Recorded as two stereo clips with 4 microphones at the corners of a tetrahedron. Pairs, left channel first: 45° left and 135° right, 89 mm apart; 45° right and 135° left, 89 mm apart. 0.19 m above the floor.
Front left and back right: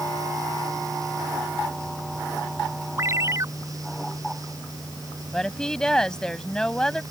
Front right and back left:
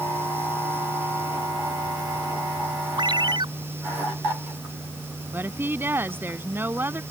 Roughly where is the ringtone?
Behind.